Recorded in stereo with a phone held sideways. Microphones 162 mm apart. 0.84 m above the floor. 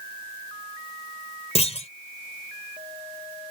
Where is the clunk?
40° left (ahead or behind).